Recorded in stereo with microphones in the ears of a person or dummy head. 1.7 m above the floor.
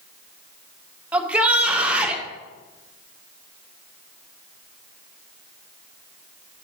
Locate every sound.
1.1 s a shout: 10° right (ahead or behind), 1.1 m